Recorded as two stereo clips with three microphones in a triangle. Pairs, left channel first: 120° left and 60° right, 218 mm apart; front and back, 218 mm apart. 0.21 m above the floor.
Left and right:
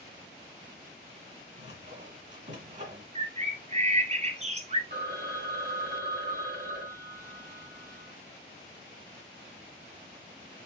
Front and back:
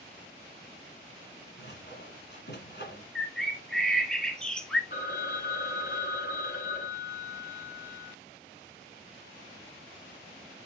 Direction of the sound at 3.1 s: 85° right.